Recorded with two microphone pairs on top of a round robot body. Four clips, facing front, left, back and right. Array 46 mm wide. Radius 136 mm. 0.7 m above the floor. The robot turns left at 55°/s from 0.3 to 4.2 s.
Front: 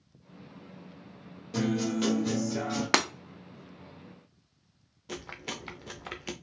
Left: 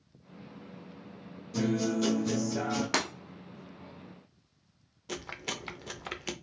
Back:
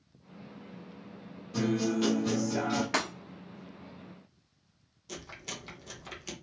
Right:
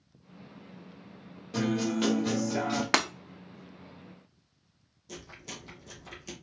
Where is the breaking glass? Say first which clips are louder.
Right 6 dB, front 8 dB; 45° right, 0.6 m; by 3.1 s 55° right, 0.6 m.